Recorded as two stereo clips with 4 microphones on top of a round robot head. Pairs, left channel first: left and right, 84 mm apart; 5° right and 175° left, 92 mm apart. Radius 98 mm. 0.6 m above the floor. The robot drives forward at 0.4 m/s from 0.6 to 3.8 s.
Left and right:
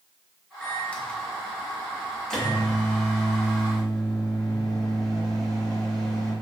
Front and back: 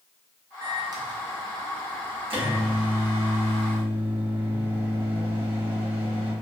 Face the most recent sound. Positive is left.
turn(degrees=175)